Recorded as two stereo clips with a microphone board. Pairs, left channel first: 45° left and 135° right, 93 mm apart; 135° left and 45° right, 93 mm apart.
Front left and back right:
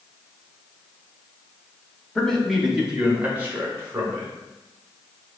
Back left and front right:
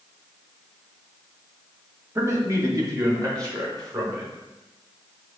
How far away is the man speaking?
About 0.9 m.